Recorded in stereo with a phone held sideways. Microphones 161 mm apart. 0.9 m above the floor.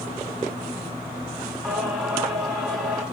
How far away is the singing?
About 6 m.